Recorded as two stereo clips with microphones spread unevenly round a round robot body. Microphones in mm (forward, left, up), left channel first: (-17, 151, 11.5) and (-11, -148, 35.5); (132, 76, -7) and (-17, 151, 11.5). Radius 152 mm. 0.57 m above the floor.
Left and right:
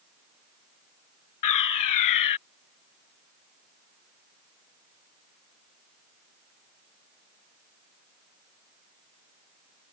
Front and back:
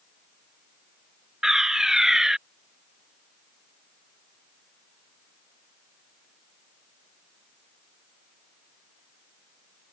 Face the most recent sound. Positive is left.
turn(degrees=65)